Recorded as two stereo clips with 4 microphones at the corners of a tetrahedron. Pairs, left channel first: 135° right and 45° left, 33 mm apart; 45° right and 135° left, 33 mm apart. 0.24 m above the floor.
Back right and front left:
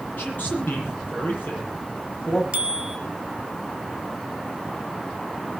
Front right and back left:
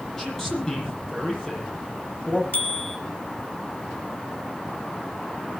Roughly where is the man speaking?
Behind right.